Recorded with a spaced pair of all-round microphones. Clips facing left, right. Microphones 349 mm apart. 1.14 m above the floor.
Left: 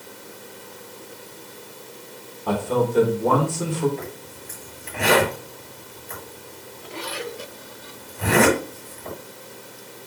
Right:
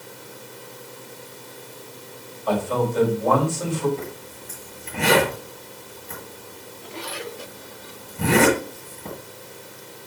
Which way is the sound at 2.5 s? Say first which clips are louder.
Left 1 dB; 70° left (ahead or behind).